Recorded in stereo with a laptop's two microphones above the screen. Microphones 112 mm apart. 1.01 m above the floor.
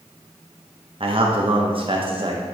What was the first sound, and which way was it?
A man speaking, 50° right (ahead or behind).